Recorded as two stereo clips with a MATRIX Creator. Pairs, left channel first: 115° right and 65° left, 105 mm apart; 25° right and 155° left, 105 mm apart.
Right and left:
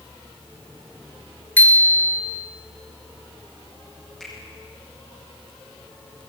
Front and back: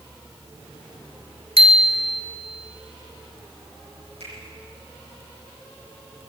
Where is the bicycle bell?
175° left, 3 m.